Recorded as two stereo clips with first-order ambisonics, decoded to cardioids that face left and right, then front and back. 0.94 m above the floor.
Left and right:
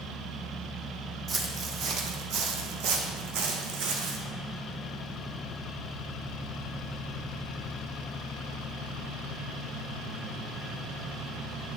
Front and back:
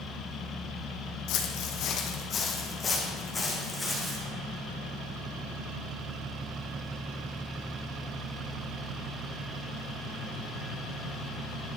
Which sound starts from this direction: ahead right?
Footsteps, at 1.3 s.